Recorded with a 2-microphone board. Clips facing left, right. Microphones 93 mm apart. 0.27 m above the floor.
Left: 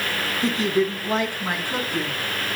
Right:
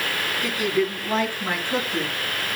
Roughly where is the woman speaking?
Left.